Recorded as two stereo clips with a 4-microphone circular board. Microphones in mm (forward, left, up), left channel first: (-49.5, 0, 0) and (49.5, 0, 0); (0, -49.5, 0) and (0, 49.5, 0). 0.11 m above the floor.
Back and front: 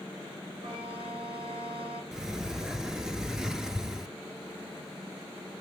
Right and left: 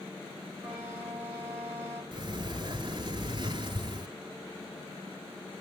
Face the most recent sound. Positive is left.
turn(degrees=85)